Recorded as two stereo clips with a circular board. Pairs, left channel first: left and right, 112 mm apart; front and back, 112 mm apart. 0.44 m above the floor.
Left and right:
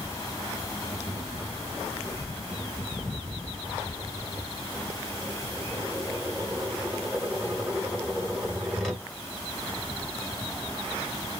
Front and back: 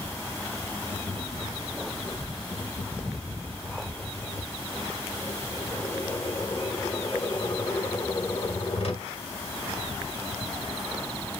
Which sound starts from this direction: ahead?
Tapping, at 0.9 s.